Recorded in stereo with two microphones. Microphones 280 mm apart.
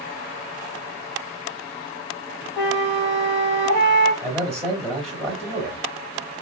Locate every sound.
2.6 s a flute: 40° left (ahead or behind), 1.3 m
4.2 s a man speaking: centre (ahead or behind), 1.3 m